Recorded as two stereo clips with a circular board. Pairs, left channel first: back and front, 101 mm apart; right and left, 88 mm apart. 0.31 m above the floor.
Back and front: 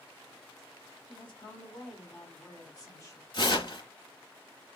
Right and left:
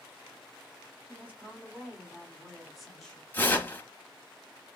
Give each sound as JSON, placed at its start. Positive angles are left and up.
{"t": 1.1, "sound": "a woman speaking", "azimuth_deg": 160, "distance_m": 3.0}
{"t": 3.3, "sound": "tearing paper", "azimuth_deg": -155, "distance_m": 0.9}